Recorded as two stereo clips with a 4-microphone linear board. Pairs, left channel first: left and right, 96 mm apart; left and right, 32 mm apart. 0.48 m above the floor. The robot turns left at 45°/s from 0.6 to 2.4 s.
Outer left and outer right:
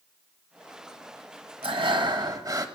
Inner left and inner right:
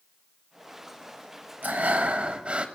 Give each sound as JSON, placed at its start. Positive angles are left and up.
{"t": 1.6, "sound": "breathing", "azimuth_deg": -105, "distance_m": 1.0}